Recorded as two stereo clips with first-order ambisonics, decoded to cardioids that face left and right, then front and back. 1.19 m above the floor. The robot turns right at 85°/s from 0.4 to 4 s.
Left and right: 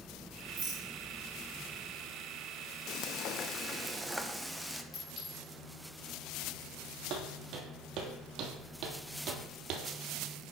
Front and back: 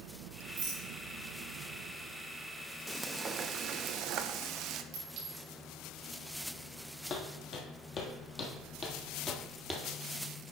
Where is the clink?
145° left, 4.5 m.